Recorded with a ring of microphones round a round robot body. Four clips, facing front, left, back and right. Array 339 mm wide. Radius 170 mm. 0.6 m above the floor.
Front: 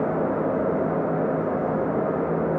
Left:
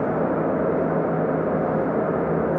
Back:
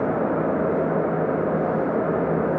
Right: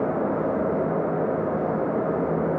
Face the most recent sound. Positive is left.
No sound to turn to.